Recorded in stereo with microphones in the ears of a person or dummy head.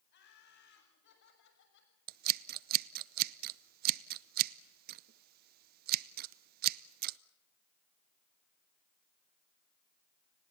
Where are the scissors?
50° right (ahead or behind), 0.6 m.